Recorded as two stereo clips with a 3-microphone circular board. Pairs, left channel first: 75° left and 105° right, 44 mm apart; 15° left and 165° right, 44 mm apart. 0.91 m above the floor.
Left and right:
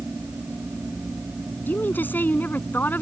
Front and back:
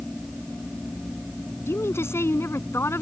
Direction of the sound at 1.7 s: 30° left.